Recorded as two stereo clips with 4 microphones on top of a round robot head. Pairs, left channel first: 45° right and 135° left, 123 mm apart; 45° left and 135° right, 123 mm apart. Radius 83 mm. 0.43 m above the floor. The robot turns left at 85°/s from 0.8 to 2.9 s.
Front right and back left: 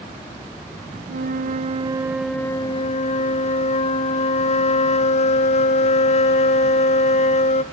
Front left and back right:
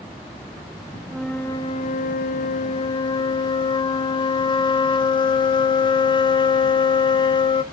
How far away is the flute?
About 0.6 m.